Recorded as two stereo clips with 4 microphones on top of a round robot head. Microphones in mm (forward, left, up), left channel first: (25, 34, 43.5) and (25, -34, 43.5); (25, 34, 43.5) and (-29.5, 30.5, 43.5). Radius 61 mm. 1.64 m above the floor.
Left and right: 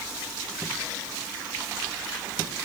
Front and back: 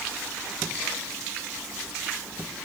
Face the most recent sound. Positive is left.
No sound to turn to.